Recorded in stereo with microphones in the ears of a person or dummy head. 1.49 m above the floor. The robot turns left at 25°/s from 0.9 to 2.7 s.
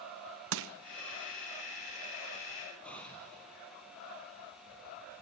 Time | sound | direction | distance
0.5 | crushing | 75° right (ahead or behind) | 1.3 m
2.8 | an explosion | 10° left (ahead or behind) | 10 m